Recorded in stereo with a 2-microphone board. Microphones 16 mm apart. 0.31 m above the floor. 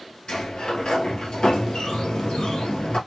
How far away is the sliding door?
About 1.2 m.